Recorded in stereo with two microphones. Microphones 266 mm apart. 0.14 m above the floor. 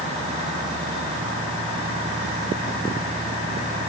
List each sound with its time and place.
Only background noise.